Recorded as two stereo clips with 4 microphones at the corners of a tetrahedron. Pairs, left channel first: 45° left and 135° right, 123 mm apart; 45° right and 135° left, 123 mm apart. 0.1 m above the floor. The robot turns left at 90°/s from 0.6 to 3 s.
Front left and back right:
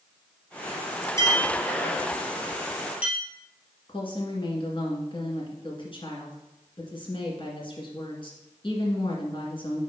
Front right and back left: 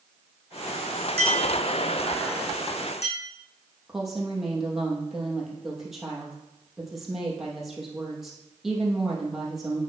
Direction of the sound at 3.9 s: 50° left.